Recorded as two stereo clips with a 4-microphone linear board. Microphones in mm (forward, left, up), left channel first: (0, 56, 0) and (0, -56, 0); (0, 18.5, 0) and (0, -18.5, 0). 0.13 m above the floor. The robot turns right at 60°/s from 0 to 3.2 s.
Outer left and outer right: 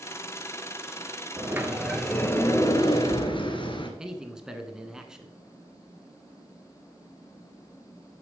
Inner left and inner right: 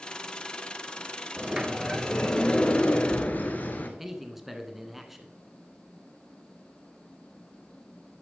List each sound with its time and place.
1.4 s a sliding door: 35° right, 1.6 m; by 3.9 s 75° left, 1.6 m
4.0 s a man speaking: 5° right (ahead or behind), 1.3 m